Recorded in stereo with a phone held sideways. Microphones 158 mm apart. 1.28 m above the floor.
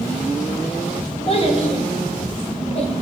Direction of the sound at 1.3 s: 40° left (ahead or behind).